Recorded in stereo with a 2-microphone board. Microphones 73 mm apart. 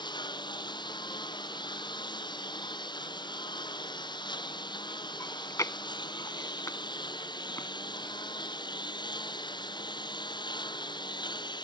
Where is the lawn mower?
85° left.